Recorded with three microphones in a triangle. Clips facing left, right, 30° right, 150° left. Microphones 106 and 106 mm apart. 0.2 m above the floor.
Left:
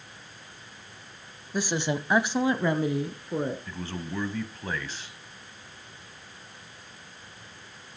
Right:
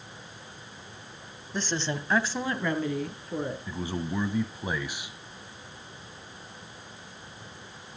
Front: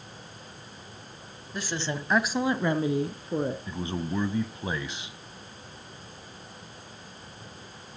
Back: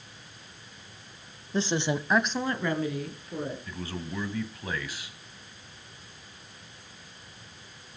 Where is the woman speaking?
165° left, 1.1 m; by 3.6 s 20° left, 2 m.